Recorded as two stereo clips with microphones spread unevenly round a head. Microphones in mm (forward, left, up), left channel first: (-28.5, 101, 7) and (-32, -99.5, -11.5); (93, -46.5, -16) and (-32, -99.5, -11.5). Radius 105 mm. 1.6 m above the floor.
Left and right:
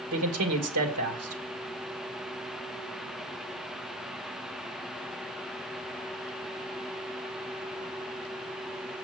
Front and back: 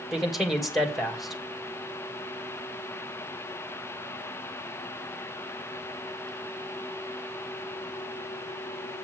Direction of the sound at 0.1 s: 70° right.